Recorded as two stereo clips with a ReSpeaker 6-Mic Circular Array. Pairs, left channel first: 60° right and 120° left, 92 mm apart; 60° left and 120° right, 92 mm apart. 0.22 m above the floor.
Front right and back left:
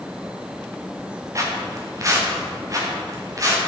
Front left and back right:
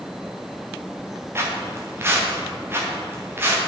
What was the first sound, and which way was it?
Footsteps, 175° left.